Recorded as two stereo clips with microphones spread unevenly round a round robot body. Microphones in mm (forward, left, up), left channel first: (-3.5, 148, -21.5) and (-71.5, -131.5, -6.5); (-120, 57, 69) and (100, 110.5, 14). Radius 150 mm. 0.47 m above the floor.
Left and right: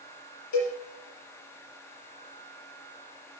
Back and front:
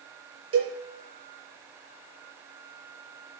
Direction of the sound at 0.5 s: 35° left.